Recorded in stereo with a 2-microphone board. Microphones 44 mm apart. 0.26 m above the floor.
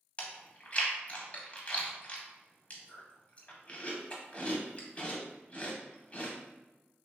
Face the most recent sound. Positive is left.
turn(degrees=30)  # may be behind; listen again after turning